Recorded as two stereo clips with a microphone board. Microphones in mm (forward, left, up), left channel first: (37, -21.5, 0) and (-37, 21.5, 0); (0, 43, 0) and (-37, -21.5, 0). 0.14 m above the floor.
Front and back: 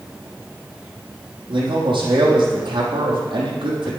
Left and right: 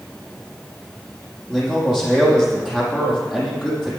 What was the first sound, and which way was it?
A man speaking, 155° left.